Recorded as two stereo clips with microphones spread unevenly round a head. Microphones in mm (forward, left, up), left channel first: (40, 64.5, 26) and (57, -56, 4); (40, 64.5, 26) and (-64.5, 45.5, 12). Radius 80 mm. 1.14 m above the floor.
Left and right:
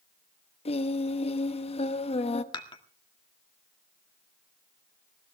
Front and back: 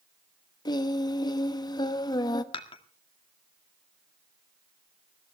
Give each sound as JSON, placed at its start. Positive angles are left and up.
{"t": 0.7, "sound": "singing", "azimuth_deg": 60, "distance_m": 1.0}
{"t": 2.5, "sound": "dishes clattering", "azimuth_deg": 50, "distance_m": 1.8}